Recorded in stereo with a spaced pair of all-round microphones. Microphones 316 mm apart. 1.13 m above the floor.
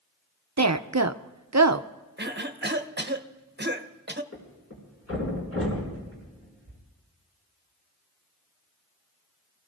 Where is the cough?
35° right (ahead or behind), 1.0 m.